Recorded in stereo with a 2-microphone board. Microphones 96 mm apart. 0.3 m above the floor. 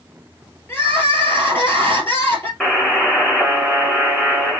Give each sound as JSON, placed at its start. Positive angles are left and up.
{"t": 0.7, "sound": "crying", "side_deg": 25, "distance_m": 1.7}
{"t": 2.6, "sound": "a buzzer", "side_deg": 5, "distance_m": 1.5}